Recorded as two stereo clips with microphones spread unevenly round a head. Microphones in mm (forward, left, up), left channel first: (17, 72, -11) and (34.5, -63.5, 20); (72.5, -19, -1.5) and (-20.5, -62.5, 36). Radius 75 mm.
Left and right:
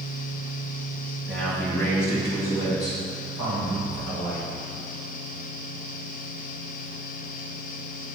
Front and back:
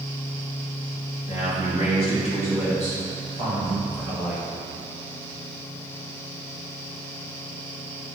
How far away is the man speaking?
About 1.8 m.